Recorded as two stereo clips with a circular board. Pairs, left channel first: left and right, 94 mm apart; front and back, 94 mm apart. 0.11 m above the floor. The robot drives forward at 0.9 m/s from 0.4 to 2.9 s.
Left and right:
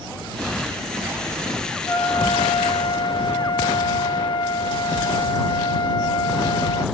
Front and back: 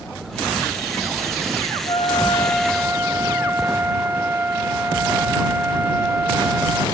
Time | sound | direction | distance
1.9 | a trumpet | 30° left | 0.9 m